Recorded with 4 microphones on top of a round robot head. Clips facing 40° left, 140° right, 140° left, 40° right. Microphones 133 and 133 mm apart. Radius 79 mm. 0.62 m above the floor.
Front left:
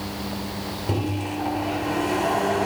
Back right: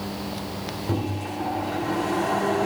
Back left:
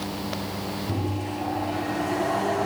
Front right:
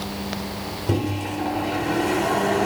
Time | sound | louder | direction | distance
0.9 | a microwave | front left 2 dB, front right 7 dB | 35° right | 2 m